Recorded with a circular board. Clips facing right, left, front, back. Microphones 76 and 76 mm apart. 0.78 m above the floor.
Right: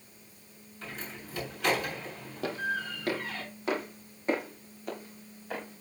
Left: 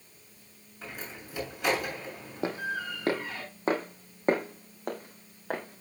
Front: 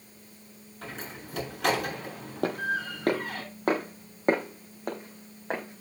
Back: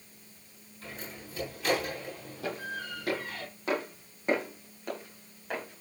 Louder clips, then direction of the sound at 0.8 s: Even, front 3 dB; 10° left.